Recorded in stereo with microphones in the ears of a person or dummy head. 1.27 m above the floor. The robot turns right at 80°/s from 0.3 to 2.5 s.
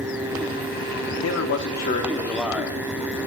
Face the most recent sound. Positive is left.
turn(degrees=180)